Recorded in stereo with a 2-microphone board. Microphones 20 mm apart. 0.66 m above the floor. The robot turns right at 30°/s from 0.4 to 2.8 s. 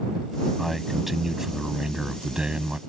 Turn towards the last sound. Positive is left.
turn(degrees=-115)